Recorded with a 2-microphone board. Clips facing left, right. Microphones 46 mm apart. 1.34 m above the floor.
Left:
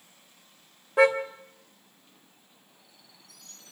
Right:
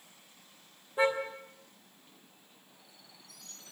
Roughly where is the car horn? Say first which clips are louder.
Left 8 dB; left.